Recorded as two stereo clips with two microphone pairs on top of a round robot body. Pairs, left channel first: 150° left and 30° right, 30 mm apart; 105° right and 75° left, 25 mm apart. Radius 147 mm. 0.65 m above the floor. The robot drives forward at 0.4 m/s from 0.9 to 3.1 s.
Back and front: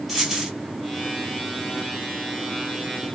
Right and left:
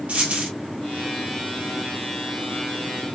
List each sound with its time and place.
0.1 s a dropped coin: 60° left, 1.3 m